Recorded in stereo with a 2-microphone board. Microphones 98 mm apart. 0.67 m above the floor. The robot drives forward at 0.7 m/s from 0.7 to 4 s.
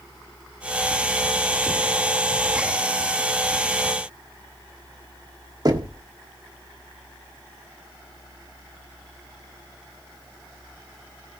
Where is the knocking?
40° right (ahead or behind), 1.3 m.